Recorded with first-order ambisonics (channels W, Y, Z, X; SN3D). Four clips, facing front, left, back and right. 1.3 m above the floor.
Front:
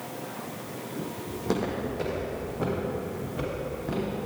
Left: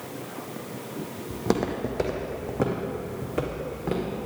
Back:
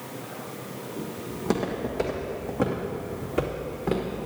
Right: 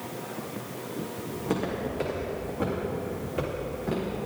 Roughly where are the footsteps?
Left.